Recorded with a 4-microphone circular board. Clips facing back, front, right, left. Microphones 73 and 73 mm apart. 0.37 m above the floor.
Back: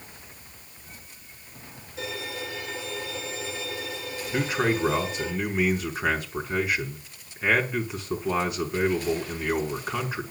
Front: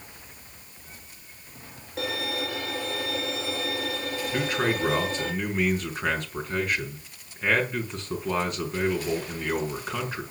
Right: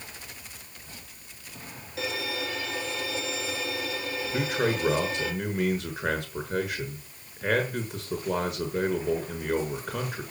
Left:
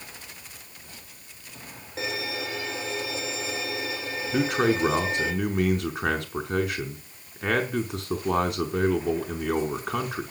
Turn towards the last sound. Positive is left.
turn(degrees=95)